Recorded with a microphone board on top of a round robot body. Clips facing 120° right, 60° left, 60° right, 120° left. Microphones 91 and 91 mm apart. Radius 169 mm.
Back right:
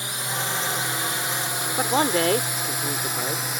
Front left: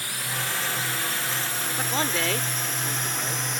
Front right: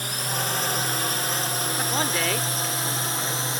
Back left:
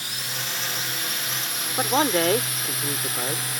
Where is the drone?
65° right; by 3.6 s 45° right.